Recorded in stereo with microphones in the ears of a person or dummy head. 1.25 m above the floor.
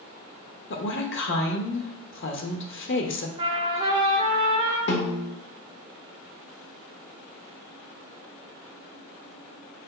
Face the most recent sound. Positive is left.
turn(degrees=60)  # may be behind; listen again after turning